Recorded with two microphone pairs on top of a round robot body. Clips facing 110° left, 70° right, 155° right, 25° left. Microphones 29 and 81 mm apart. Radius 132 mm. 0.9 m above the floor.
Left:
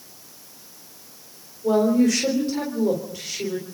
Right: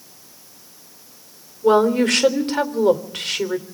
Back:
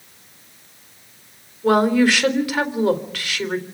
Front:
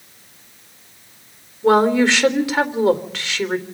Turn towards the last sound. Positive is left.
turn(degrees=-40)